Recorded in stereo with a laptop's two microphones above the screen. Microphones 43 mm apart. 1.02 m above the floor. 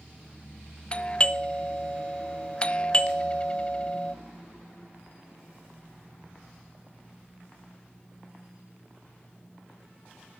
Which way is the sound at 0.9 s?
25° left (ahead or behind).